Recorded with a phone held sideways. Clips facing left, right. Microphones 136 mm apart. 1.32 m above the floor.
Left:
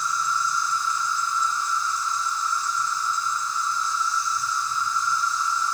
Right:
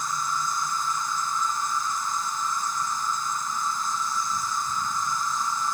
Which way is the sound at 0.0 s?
50° right (ahead or behind).